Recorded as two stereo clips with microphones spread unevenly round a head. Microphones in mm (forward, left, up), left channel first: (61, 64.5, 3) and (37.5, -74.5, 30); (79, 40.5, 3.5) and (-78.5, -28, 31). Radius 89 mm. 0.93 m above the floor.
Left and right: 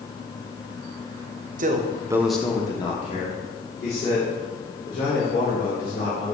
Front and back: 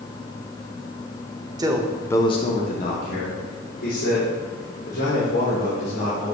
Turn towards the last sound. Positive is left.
turn(degrees=55)